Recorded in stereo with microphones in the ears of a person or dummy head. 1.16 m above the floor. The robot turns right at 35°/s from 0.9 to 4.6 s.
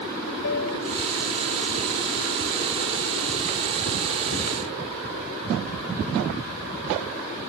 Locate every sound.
0.4 s a piano: 70° left (ahead or behind)